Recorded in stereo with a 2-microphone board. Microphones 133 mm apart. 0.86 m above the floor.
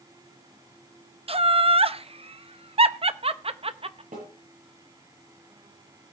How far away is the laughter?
About 0.7 m.